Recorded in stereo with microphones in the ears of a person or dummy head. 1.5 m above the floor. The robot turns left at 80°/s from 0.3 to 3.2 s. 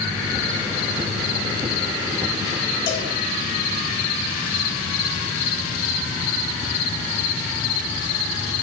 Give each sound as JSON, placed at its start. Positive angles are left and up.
{"t": 2.9, "sound": "a cowbell", "side_deg": 50, "distance_m": 2.0}